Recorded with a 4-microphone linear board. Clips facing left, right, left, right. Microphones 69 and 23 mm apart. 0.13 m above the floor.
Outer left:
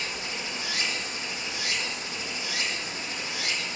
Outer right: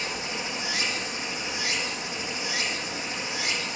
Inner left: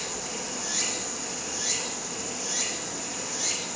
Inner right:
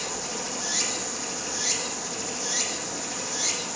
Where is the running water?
20° right (ahead or behind), 0.9 m.